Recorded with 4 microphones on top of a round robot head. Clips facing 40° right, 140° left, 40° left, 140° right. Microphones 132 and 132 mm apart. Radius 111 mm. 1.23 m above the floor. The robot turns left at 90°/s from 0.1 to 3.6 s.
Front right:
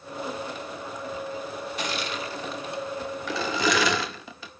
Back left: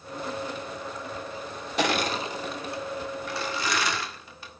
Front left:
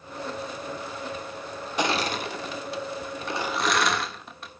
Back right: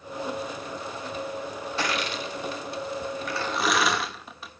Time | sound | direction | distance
1.8 | crushing | 115° left | 0.7 m